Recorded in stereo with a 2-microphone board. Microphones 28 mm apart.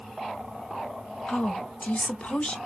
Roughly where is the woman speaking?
Left.